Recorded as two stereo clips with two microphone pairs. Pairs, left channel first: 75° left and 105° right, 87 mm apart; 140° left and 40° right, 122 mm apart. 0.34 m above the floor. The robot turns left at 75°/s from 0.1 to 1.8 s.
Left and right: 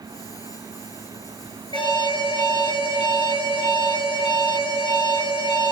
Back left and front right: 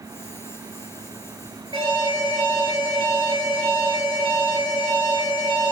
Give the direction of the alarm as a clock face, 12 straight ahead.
9 o'clock.